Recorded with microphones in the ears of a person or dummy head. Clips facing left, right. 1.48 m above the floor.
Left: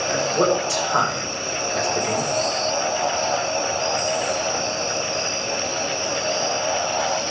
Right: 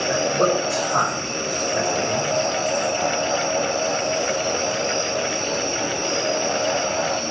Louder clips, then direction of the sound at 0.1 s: Even; 50° left (ahead or behind).